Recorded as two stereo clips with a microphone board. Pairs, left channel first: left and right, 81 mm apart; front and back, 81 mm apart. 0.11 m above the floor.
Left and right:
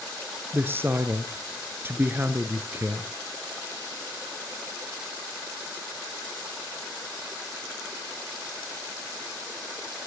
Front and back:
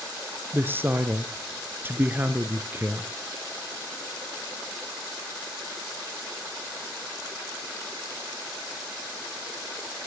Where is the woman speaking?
135° right, 1.3 m.